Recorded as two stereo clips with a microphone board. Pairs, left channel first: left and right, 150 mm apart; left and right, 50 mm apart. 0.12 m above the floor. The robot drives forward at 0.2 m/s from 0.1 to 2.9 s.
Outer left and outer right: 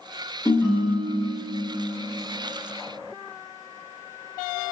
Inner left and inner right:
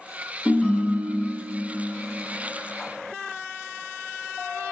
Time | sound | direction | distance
0.5 | a ringtone | 20° left (ahead or behind) | 0.6 m